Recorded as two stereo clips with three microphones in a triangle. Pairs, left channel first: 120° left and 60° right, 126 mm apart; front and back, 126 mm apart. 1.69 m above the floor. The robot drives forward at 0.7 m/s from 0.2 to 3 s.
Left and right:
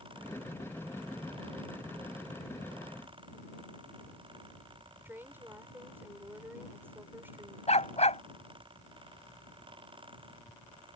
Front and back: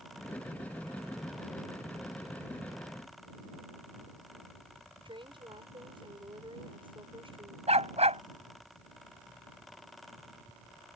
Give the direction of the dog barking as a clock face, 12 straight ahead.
7 o'clock.